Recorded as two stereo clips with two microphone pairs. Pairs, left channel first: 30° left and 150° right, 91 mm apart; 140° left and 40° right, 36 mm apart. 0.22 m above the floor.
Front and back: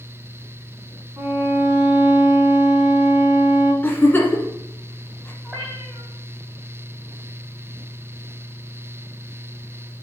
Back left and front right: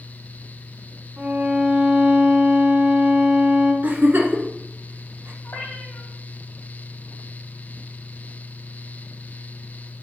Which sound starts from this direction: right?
A violin, at 1.2 s.